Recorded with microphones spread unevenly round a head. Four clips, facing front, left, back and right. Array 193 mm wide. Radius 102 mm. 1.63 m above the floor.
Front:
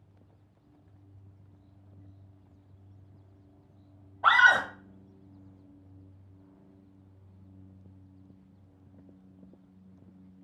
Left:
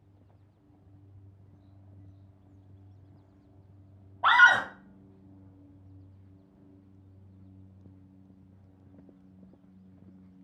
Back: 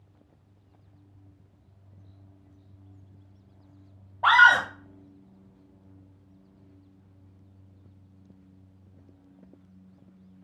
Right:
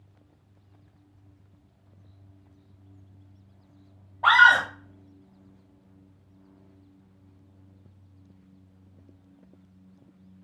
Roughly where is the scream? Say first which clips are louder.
Right 3 dB, back 4 dB; behind.